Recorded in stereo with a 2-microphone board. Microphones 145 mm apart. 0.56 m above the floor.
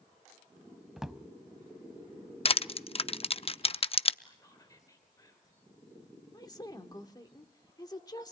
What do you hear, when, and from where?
1.0 s a drawer: 5° right (ahead or behind), 0.7 m
2.5 s crushing: 40° left (ahead or behind), 0.5 m
4.2 s whispering: 25° left (ahead or behind), 2.5 m
6.3 s a woman speaking: 25° left (ahead or behind), 1.7 m